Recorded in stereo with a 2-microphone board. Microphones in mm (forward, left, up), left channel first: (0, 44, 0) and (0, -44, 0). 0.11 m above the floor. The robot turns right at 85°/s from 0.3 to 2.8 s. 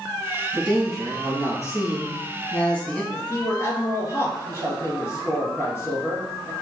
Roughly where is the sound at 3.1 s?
Left.